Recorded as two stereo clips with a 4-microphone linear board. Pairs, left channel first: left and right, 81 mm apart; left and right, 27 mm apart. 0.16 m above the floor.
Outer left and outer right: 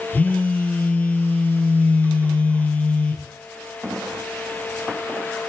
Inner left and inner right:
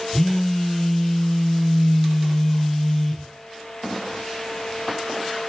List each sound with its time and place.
0.1 s a phone buzzing: 20° left (ahead or behind), 2.5 m